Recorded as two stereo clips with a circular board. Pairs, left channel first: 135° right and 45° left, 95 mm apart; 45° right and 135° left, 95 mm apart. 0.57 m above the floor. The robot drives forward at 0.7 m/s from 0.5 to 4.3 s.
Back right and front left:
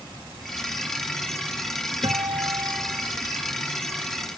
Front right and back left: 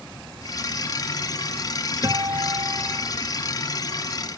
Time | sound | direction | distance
2.0 | a guitar | 85° left | ?